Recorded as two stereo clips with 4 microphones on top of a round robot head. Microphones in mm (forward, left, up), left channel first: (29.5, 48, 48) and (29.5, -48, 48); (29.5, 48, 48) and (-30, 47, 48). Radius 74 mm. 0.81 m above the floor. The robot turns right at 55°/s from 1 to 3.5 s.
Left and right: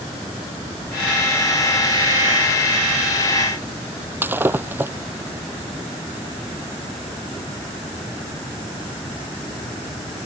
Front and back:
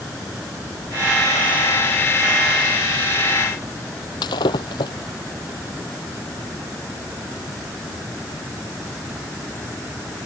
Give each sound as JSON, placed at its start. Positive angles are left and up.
{"t": 4.2, "sound": "breaking glass", "azimuth_deg": -20}